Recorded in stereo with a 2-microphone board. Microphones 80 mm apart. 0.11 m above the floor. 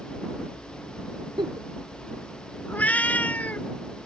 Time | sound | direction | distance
1.4 | a giggle | 75° right (ahead or behind) | ?
2.7 | a cat meowing | 20° left (ahead or behind) | ?